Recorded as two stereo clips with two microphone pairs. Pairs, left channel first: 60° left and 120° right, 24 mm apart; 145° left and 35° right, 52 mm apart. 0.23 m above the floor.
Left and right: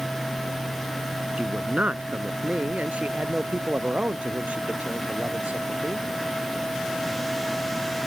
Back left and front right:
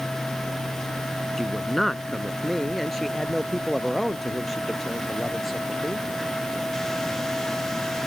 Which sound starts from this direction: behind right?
A man speaking, at 1.4 s.